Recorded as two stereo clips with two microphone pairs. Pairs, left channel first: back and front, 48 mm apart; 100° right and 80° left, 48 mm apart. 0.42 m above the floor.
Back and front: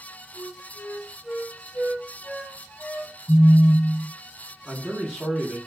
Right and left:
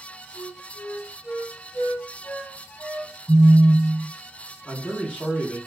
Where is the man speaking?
110° right, 1.0 m.